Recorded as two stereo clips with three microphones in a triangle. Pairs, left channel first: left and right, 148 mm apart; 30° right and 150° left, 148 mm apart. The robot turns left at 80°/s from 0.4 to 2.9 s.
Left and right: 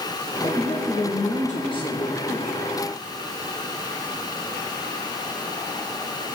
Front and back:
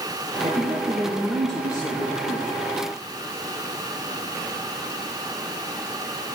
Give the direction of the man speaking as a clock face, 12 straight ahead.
7 o'clock.